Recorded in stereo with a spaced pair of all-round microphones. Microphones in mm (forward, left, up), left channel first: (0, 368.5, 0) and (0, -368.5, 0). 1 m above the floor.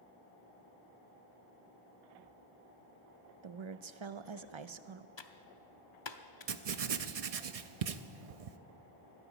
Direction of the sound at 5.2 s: 40° left (ahead or behind).